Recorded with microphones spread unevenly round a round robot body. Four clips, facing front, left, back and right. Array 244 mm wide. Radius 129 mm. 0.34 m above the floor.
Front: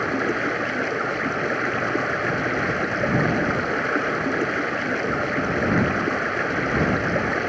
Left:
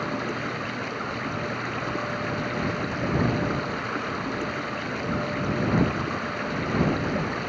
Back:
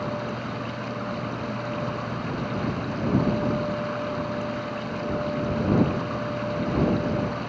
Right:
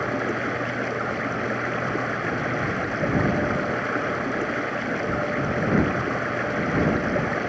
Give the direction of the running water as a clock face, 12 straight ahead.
12 o'clock.